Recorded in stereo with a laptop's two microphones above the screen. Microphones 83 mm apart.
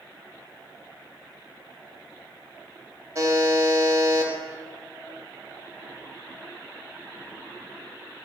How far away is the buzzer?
About 1.5 m.